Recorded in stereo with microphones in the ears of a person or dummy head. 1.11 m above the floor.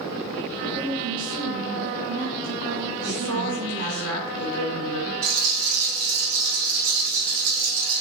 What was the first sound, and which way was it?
A woman speaking, 55° right (ahead or behind).